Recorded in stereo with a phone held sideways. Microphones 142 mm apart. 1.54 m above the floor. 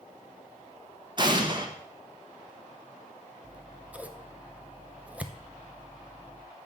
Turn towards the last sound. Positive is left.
turn(degrees=-10)  # may be behind; listen again after turning